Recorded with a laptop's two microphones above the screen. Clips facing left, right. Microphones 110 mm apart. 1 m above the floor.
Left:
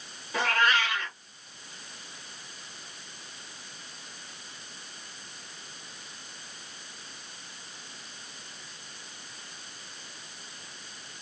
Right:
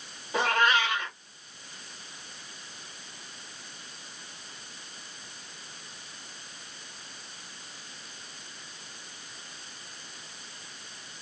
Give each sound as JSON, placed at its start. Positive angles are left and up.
{"t": 0.3, "sound": "a cat meowing", "side_deg": -20, "distance_m": 1.4}